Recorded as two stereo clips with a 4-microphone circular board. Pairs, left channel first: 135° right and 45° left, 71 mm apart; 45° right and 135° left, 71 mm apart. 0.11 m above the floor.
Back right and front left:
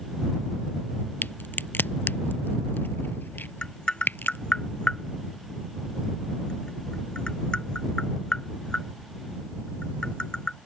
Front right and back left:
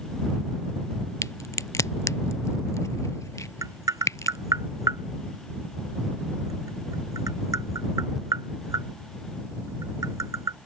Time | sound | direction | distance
1.2 | a crack | 75° right | ?
3.6 | tapping | 150° left | ?